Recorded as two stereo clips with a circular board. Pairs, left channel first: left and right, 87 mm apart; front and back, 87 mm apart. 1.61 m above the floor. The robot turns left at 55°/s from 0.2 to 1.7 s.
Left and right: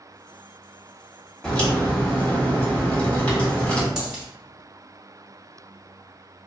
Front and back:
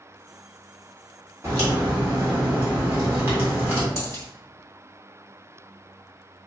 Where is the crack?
160° left, 1.4 m; by 3.9 s 145° left, 1.4 m.